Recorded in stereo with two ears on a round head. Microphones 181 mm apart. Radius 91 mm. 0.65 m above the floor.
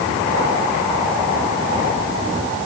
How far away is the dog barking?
No dog barking in this recording.